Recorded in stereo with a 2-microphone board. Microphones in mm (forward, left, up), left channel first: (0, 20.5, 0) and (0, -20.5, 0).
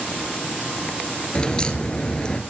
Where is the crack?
20° left (ahead or behind), 1.9 m.